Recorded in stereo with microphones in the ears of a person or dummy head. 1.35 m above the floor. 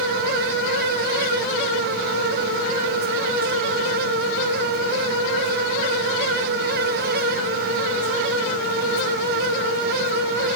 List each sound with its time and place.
Only background noise.